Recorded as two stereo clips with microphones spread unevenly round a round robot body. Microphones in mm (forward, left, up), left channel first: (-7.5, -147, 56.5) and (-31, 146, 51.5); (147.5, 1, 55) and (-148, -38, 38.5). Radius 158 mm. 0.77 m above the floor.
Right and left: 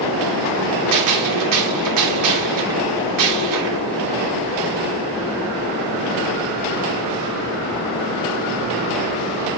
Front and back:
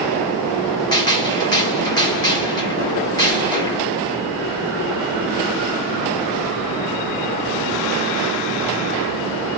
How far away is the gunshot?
About 3 m.